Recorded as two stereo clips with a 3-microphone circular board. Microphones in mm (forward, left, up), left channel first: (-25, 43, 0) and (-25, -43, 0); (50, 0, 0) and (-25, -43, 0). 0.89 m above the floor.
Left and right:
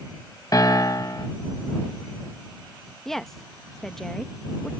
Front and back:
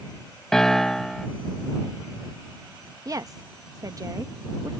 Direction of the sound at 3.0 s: 175° left.